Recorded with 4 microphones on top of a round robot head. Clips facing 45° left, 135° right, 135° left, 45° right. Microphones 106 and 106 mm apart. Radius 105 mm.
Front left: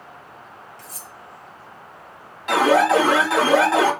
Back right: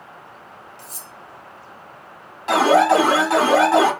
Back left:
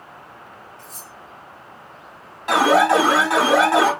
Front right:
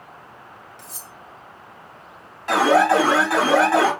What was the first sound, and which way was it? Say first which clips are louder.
Cutlery clinking: even, back left 1 dB; 70° right.